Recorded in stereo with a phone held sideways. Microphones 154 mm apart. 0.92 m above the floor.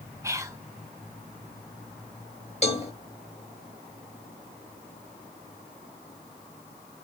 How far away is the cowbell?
About 1.0 m.